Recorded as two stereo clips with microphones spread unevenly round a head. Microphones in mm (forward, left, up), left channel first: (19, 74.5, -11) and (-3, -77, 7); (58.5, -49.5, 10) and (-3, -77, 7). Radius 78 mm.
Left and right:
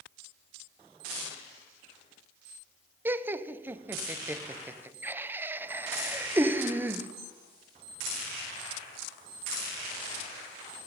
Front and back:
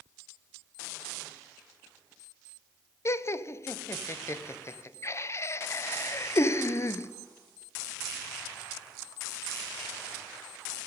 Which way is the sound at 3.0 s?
20° right.